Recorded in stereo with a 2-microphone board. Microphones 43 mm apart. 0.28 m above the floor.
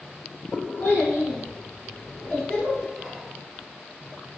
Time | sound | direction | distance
0.8 | a child speaking | 60° left (ahead or behind) | 1.8 m
3.0 | whispering | 5° left (ahead or behind) | 1.4 m